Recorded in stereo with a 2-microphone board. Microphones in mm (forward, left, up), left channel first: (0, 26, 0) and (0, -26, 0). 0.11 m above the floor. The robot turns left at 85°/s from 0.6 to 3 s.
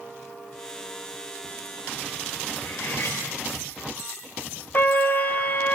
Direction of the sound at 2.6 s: 90° left.